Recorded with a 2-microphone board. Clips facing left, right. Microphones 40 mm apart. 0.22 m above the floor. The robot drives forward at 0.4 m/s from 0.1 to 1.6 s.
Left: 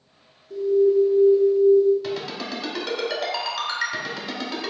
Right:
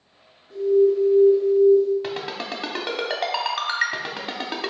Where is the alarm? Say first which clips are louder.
Even; 45° right (ahead or behind), 1.8 m; by 1.9 s 40° right (ahead or behind), 2.0 m.